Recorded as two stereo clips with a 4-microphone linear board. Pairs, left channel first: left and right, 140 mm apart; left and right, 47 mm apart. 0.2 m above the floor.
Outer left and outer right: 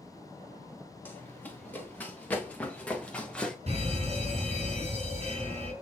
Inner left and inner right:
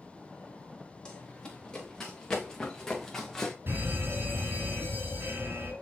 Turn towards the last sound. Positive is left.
turn(degrees=-50)  # may be behind; listen again after turning